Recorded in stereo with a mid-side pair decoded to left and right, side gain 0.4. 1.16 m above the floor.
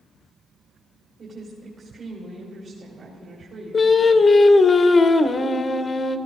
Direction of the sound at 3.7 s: 40° left.